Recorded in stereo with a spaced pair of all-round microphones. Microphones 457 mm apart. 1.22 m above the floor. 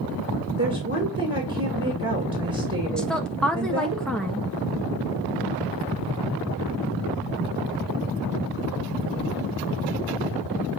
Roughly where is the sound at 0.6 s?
Right.